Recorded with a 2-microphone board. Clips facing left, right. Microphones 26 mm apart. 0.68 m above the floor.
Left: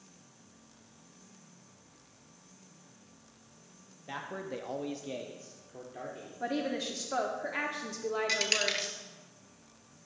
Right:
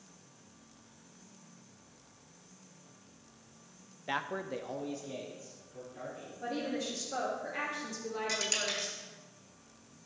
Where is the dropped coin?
40° left (ahead or behind), 0.8 m.